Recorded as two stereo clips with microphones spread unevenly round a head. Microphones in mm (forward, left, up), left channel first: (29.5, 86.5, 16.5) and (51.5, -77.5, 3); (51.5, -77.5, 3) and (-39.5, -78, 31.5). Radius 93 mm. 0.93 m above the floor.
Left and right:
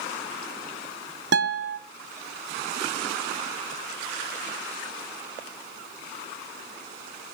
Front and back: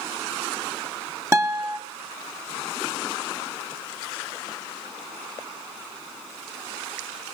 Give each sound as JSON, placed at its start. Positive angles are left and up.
{"t": 1.3, "sound": "a guitar", "azimuth_deg": -115, "distance_m": 1.9}